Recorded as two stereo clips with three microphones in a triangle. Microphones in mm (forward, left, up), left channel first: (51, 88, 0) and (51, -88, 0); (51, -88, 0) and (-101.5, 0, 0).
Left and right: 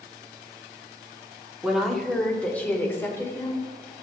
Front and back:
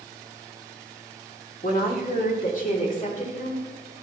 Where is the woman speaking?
5° right, 1.7 m; by 3.7 s 15° left, 3 m.